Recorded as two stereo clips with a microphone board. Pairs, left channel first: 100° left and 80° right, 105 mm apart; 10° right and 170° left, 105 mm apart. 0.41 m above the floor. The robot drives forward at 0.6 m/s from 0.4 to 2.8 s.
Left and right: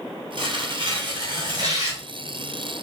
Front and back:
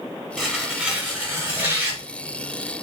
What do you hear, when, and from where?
0.4 s tearing paper: 105° right, 1.6 m; by 2.0 s 130° right, 2 m